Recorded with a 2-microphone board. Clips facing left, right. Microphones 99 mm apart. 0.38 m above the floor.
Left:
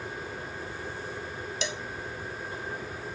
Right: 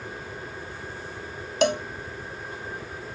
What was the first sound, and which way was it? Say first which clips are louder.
A cowbell: right 15 dB; 60° right (ahead or behind).